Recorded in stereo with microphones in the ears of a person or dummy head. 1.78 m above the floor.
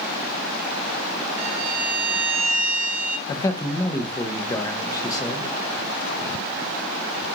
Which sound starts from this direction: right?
A violin, at 1.4 s.